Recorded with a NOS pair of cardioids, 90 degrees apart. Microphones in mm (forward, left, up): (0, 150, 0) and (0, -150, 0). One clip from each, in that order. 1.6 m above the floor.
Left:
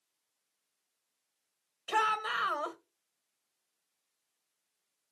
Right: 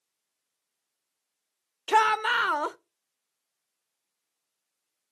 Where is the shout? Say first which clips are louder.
Right 8 dB; 50° right, 1.3 m.